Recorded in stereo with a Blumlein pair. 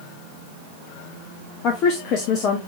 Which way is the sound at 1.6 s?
35° left.